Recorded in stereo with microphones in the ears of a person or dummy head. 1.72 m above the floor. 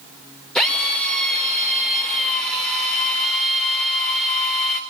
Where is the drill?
5° left (ahead or behind), 5.5 m.